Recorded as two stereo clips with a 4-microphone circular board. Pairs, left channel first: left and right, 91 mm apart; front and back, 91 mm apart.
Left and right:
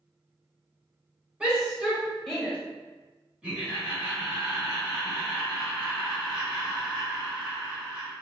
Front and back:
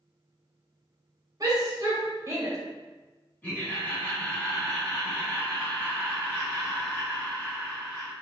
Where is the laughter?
35° right, 1.4 m.